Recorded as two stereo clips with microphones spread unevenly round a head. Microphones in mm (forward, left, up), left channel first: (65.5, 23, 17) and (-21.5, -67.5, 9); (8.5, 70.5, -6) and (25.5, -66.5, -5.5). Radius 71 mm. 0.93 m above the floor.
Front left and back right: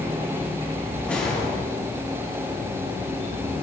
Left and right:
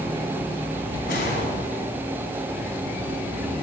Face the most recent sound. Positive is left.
turn(degrees=130)